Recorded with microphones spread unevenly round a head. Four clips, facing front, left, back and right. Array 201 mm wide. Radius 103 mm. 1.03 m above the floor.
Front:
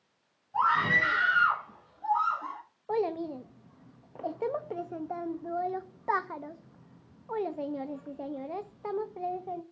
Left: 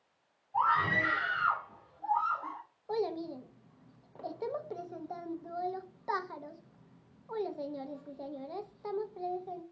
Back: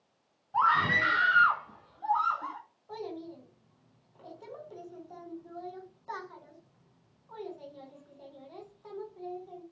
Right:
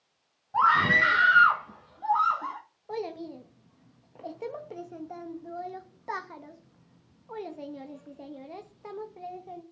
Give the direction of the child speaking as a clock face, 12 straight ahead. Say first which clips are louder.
Left 1 dB, front 10 dB; 12 o'clock.